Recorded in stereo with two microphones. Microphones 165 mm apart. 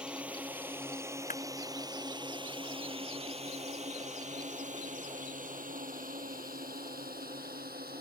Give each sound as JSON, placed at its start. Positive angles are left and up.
{"t": 0.0, "sound": "a drone", "side_deg": -5}
{"t": 1.3, "sound": "a clap", "side_deg": 55}